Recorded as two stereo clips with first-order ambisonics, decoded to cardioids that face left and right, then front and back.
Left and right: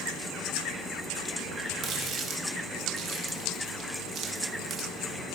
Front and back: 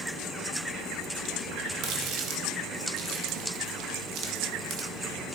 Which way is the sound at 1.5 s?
145° right.